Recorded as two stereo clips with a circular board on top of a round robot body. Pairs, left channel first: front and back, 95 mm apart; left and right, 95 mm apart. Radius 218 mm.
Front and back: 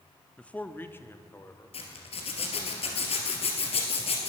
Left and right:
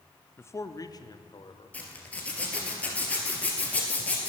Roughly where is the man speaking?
Ahead left.